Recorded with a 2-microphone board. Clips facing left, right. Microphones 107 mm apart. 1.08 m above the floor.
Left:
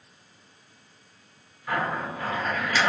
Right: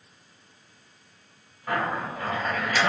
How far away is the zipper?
About 1.3 m.